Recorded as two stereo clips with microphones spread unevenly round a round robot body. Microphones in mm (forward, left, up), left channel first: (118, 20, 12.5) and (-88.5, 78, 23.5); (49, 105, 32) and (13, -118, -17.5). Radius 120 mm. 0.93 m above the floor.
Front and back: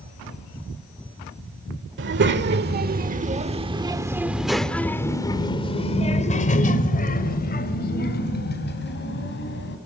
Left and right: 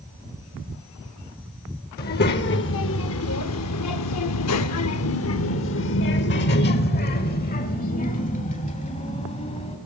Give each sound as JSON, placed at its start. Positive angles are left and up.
{"t": 2.0, "sound": "a child speaking", "azimuth_deg": 135, "distance_m": 1.8}